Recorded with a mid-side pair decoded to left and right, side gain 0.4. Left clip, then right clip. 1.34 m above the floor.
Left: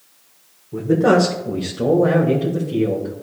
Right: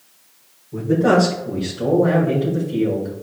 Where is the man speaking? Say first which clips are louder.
Left 1 dB; 35° left, 1.5 m; by 3.2 s 55° left, 3 m.